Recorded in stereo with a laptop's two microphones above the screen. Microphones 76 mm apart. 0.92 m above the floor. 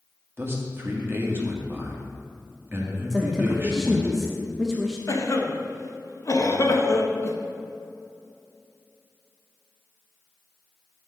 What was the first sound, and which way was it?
A man speaking, 30° right (ahead or behind).